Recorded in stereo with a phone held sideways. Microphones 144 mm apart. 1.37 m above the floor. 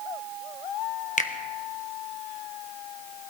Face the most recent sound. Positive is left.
turn(degrees=60)  # may be behind; listen again after turning